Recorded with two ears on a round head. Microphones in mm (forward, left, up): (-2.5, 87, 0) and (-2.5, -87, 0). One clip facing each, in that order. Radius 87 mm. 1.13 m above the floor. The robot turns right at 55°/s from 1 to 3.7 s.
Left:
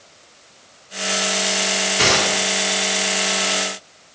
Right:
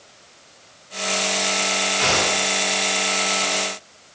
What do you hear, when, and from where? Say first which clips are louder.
2.0 s a gunshot: left 3 dB; 80° left, 3 m; by 2.4 s 75° left (ahead or behind), 3 m